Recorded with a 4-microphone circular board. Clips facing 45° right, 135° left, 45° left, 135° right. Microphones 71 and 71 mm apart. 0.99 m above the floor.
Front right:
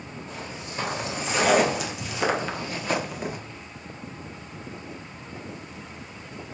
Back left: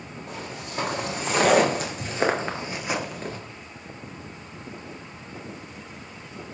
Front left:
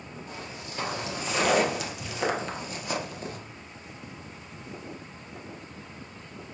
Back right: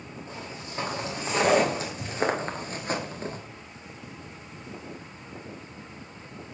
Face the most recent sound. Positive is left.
turn(degrees=-110)